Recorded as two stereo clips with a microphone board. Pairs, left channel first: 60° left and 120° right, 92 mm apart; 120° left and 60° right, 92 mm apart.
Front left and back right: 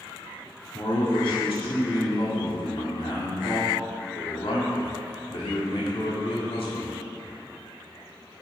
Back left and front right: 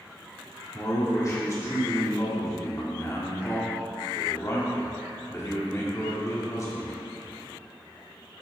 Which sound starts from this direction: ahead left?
A man speaking, at 0.7 s.